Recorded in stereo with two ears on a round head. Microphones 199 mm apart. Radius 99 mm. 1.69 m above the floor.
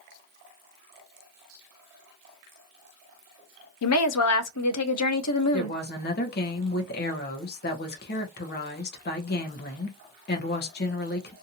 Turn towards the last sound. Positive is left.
turn(degrees=45)  # may be behind; listen again after turning